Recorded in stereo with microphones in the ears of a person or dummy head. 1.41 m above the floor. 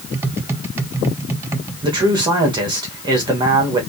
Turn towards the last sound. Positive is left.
turn(degrees=-20)  # may be behind; listen again after turning